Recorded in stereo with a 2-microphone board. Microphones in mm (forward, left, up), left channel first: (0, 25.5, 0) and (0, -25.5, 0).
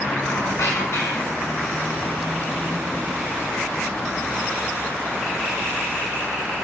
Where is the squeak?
75° left (ahead or behind), 6 m.